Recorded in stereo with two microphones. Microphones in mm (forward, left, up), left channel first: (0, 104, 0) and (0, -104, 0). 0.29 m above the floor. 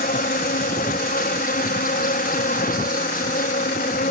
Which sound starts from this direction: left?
An insect, at 0.0 s.